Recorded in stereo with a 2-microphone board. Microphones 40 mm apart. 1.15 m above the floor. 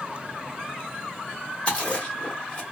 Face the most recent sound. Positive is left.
turn(degrees=30)  # may be behind; listen again after turning